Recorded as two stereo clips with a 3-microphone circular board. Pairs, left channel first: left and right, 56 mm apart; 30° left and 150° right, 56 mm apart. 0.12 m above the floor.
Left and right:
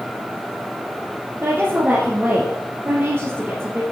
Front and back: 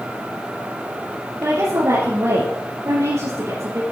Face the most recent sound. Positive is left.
turn(degrees=-140)